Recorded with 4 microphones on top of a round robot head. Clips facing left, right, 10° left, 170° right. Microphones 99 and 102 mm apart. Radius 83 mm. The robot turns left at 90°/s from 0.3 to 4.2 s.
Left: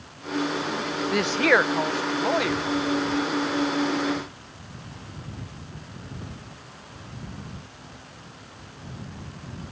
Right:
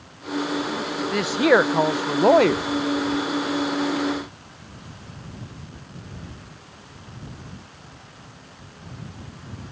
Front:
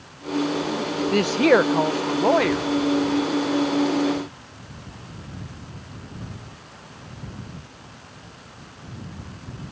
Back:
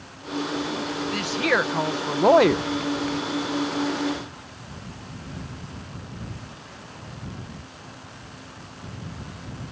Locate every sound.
1.1 s a woman speaking: 5° left; by 2.6 s 130° right